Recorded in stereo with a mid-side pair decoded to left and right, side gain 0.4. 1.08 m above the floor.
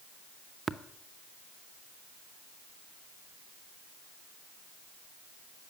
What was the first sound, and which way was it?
Tapping, 30° right.